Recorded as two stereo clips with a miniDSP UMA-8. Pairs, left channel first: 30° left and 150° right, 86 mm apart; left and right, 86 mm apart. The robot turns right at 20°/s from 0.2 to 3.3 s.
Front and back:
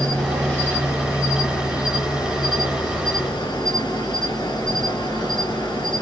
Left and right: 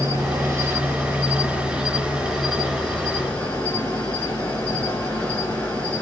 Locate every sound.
0.0 s an insect: 40° right, 2 m; by 6.0 s 25° left, 2 m